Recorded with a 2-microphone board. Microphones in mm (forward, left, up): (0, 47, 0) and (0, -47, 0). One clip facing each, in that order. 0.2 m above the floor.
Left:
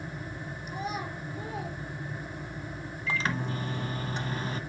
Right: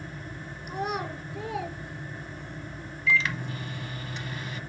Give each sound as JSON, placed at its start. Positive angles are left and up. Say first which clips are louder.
{"t": 0.7, "sound": "a child speaking", "louder": "right 4 dB", "side_deg": -55, "distance_m": 1.8}
{"t": 3.1, "sound": "a microwave", "louder": "right 3 dB", "side_deg": 35, "distance_m": 0.9}